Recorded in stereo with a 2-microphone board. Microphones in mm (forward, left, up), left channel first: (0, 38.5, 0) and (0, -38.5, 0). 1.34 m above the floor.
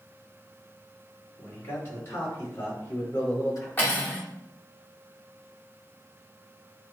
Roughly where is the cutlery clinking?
Left.